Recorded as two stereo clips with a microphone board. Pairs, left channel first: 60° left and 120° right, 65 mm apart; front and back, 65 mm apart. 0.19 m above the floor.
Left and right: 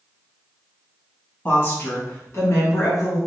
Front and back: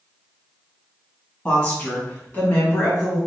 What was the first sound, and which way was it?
A woman speaking, 50° left.